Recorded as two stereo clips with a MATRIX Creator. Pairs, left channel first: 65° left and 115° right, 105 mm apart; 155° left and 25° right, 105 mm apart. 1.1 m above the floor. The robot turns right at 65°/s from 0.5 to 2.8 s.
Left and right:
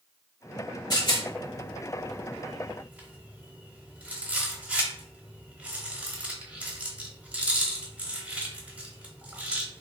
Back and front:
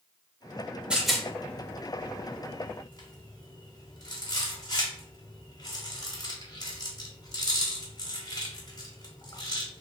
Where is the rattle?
50° left, 1.1 m; by 9.8 s 175° left, 1.1 m.